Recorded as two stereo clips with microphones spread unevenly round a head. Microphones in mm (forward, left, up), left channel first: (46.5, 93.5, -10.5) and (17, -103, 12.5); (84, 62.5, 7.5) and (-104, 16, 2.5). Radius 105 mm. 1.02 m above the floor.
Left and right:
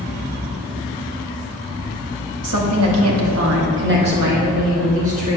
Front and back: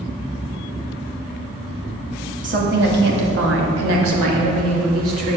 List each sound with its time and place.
2.4 s a woman speaking: 110° right, 1.5 m; by 5.4 s 160° right, 2.5 m